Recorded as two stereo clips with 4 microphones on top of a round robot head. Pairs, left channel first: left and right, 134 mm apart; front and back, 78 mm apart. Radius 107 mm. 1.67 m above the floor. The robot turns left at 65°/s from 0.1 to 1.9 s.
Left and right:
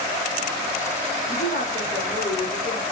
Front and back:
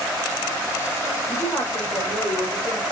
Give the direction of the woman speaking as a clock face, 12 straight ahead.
10 o'clock.